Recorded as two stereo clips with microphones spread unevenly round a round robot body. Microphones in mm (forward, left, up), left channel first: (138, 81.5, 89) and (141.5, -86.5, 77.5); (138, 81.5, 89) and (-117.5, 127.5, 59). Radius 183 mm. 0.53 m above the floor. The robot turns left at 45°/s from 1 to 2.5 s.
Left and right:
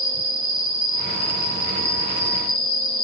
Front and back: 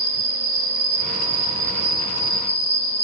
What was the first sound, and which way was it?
An insect, 135° left.